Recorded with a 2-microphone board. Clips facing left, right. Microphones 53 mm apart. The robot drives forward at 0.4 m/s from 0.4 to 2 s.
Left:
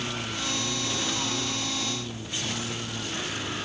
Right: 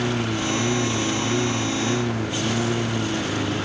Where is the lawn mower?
85° right; by 3.6 s 80° right.